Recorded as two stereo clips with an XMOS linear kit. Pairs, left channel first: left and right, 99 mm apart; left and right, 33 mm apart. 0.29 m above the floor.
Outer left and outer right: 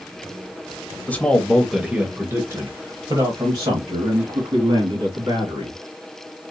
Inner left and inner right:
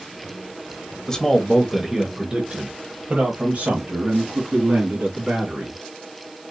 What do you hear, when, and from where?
1.1 s a man speaking: 20° left (ahead or behind), 0.9 m; by 5.8 s 70° right (ahead or behind), 2.5 m